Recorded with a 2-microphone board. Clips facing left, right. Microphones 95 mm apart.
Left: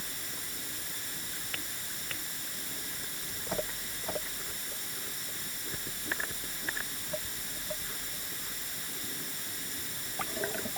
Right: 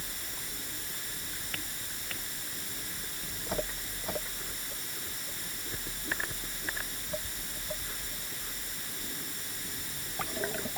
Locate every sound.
Only background noise.